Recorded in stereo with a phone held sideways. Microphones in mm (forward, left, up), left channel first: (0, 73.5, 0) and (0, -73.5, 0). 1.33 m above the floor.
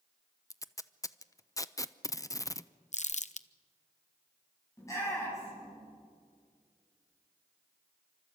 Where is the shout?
20° left (ahead or behind), 8.5 m.